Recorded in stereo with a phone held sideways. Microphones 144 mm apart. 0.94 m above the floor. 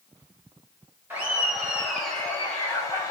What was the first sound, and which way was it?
Laughter, 15° right (ahead or behind).